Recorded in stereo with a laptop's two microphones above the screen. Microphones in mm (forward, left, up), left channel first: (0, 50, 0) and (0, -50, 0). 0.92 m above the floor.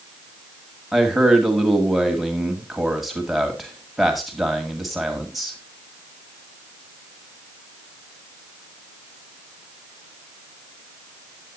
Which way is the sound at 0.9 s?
Centre (ahead or behind).